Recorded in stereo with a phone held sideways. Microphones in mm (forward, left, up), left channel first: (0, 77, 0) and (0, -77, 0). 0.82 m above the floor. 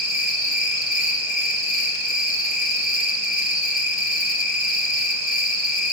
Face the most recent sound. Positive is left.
turn(degrees=-70)  # may be behind; listen again after turning